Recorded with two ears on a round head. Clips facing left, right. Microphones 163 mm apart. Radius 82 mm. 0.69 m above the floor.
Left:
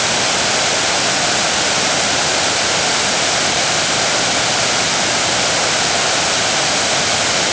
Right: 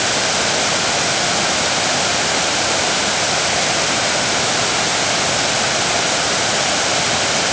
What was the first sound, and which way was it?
Only background noise.